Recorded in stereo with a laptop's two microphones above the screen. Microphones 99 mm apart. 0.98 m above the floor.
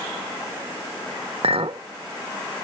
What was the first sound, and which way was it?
A clink, 80° right.